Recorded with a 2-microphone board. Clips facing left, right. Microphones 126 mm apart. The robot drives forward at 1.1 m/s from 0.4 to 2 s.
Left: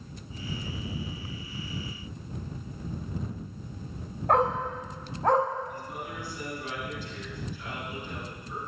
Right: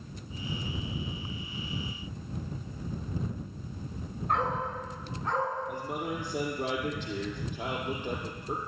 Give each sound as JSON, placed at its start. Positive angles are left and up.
{"t": 4.3, "sound": "a dog barking", "side_deg": 85, "distance_m": 5.5}
{"t": 5.7, "sound": "a man speaking", "side_deg": -80, "distance_m": 7.5}